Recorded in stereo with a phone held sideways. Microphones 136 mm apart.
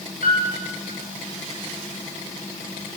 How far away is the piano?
About 8 m.